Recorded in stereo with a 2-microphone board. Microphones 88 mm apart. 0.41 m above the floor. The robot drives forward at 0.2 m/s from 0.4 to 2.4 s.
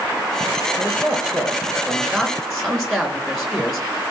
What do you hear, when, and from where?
0.8 s a man speaking: 5° left (ahead or behind), 4 m